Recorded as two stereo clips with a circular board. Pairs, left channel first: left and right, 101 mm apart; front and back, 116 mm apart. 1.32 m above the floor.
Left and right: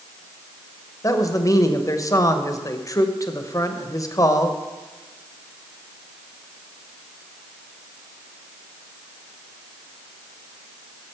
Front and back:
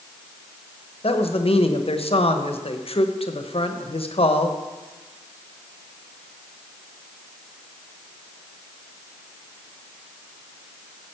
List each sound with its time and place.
1.0 s a man speaking: 35° left, 1.0 m